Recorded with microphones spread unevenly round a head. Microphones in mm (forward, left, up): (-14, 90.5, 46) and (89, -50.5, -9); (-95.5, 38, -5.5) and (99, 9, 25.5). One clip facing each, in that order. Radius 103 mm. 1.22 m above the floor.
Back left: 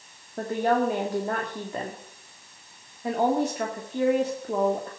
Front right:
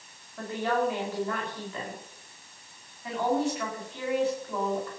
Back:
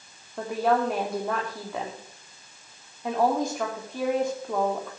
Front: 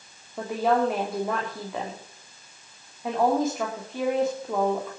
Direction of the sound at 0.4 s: 80° left.